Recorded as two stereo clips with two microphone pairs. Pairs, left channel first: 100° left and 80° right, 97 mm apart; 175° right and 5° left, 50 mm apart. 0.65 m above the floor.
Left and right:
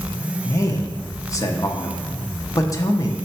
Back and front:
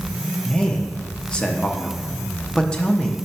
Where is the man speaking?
130° left, 0.7 m.